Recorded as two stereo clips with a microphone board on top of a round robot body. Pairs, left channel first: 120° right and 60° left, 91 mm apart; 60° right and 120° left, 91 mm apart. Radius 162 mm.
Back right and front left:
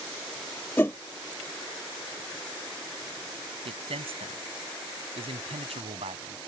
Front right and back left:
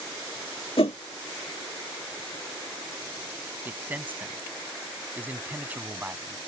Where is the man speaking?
50° left.